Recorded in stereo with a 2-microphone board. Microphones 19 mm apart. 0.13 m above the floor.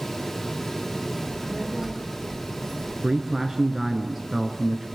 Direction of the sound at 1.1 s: 5° right (ahead or behind).